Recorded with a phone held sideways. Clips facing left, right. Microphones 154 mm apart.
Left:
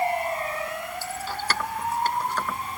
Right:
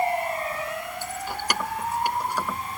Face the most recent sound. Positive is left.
turn(degrees=-10)  # may be behind; listen again after turning